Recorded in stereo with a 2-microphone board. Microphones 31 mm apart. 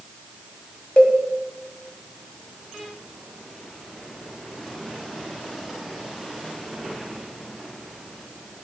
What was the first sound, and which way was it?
A cowbell, 45° left (ahead or behind).